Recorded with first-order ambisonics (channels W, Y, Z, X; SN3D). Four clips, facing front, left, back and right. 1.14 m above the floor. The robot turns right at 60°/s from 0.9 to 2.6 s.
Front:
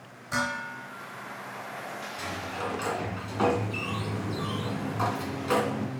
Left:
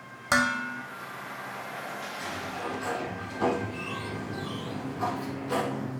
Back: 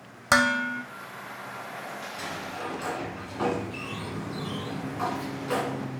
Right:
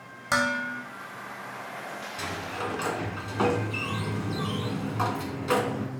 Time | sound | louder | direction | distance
0.3 | dishes clattering | even, back 8 dB | 170° left | 1.1 m
2.2 | a sliding door | right 4 dB, front 2 dB | 95° right | 1.9 m